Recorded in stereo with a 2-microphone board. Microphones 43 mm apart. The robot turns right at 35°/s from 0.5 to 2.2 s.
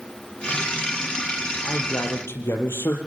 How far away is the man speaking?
About 5.5 m.